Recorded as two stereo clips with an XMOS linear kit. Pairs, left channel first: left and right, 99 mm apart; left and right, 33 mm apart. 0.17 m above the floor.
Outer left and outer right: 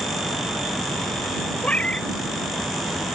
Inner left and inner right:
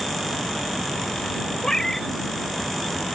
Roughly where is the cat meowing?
Centre.